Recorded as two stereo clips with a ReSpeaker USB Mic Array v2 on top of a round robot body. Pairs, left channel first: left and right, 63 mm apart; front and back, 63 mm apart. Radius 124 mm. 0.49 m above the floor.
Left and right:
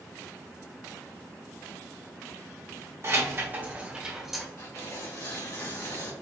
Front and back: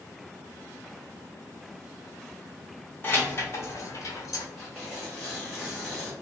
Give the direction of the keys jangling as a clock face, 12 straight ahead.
2 o'clock.